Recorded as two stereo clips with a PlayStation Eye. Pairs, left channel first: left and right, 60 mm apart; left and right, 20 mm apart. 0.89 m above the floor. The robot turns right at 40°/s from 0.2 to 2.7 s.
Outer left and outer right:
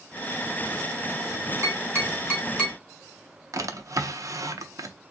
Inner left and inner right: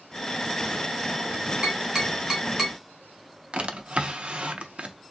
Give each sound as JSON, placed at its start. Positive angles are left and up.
{"t": 1.6, "sound": "tapping", "side_deg": -55, "distance_m": 2.0}
{"t": 3.5, "sound": "a drawer", "side_deg": -65, "distance_m": 0.6}